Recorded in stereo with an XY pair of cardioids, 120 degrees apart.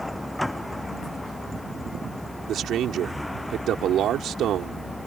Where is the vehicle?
5° left.